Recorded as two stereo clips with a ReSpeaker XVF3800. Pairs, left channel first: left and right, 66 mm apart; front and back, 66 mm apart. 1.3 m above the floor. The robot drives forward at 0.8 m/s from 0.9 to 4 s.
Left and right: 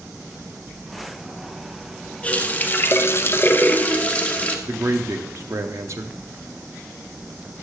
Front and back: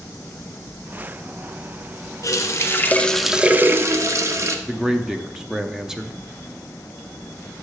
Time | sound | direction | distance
2.2 | a running tap | 25° left | 1.0 m
4.7 | a man speaking | 100° right | 0.8 m